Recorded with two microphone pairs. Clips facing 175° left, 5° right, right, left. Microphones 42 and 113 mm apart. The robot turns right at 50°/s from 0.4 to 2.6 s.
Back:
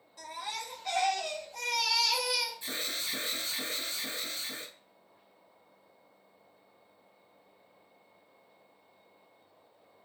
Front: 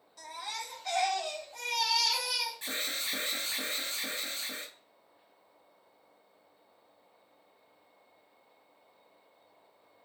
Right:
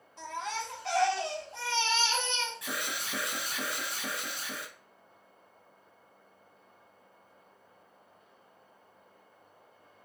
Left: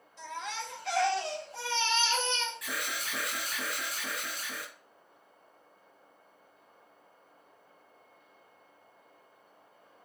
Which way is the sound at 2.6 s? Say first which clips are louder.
Front 1 dB, even; 30° right.